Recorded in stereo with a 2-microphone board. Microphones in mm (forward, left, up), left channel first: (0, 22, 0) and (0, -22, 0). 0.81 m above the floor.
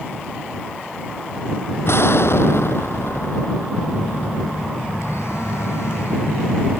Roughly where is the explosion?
Left.